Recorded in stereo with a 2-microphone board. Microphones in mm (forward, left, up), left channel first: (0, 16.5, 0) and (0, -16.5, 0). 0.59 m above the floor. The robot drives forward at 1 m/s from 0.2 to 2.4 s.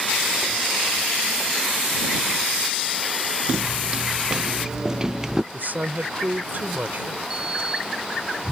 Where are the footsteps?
30° right (ahead or behind); by 5.4 s 15° right (ahead or behind).